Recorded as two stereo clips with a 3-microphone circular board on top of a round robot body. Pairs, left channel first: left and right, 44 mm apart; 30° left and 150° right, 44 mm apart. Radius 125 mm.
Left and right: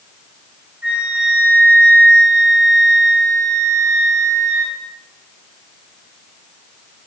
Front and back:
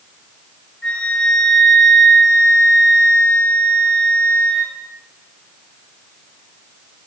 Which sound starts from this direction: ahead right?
A flute, at 0.8 s.